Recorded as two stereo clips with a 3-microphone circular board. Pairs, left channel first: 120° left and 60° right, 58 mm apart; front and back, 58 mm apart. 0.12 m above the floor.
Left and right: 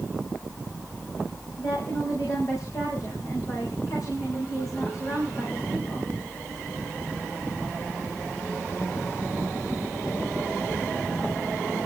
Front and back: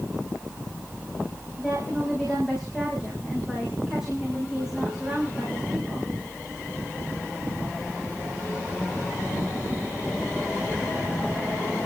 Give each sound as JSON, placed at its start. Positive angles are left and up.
{"t": 1.6, "sound": "a woman speaking", "azimuth_deg": 100, "distance_m": 6.0}